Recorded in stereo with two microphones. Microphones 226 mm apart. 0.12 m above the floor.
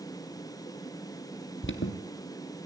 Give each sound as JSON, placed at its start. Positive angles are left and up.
{"t": 1.6, "sound": "an alarm", "side_deg": 65, "distance_m": 2.0}